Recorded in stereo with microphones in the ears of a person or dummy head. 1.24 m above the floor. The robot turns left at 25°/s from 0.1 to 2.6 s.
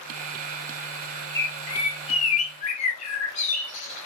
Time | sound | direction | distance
1.4 | a bird | 20° left (ahead or behind) | 1.0 m